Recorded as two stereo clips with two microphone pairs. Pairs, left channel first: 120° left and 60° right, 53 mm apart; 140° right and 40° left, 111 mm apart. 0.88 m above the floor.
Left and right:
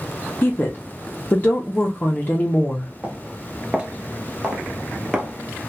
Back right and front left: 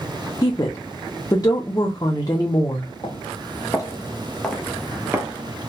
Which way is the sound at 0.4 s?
170° left.